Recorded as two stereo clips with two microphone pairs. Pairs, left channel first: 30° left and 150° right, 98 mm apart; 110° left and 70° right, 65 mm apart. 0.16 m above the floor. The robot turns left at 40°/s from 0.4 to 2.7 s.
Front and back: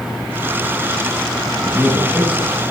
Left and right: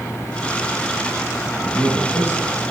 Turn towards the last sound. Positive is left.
turn(degrees=125)